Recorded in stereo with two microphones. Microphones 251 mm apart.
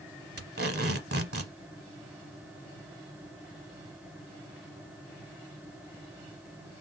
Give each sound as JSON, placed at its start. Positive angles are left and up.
{"t": 0.4, "sound": "tape being pulled", "side_deg": -65, "distance_m": 0.8}